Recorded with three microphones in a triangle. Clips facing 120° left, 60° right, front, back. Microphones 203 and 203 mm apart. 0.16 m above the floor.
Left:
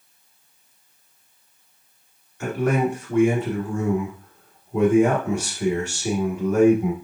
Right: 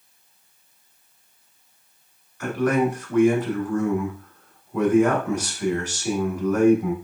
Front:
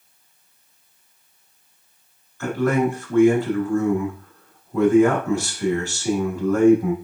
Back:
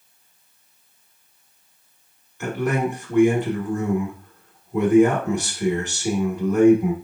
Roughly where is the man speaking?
Behind left.